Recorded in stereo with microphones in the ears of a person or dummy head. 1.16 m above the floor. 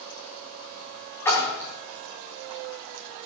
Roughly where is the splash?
Centre.